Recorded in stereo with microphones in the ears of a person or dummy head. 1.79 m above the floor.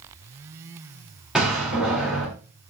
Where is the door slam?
Centre (ahead or behind), 3.5 m.